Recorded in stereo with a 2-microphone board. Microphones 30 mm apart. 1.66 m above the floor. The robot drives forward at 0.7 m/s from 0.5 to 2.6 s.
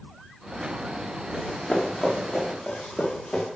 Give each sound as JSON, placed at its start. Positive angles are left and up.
{"t": 1.3, "sound": "running footsteps", "side_deg": 30, "distance_m": 7.5}